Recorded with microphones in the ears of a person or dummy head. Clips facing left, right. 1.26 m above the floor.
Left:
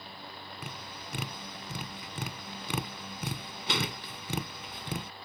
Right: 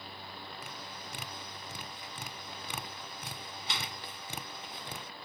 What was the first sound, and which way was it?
Tapping, 55° left (ahead or behind).